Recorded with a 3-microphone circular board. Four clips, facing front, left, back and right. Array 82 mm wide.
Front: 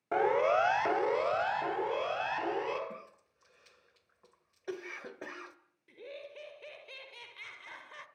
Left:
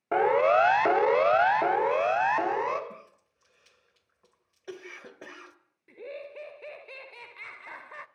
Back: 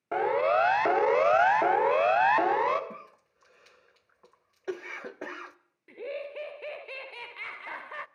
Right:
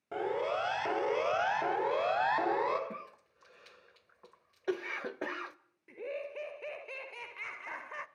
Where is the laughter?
170° right, 1.4 m.